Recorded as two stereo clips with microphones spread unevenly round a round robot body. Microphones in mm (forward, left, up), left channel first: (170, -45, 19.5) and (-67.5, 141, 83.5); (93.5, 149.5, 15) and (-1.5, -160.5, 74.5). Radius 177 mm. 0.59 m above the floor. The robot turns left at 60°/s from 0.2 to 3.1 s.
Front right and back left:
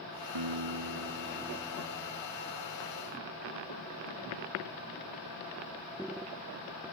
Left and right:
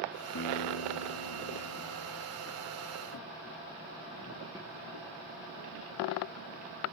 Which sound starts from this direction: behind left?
A guitar, at 0.3 s.